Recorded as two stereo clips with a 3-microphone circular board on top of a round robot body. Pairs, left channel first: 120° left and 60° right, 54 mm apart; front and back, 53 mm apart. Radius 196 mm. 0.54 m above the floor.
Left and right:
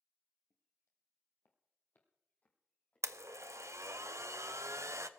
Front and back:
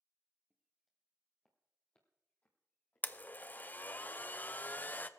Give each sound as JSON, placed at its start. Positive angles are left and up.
{"t": 0.5, "sound": "footsteps", "azimuth_deg": 105, "distance_m": 1.3}
{"t": 3.0, "sound": "a blender", "azimuth_deg": -50, "distance_m": 0.8}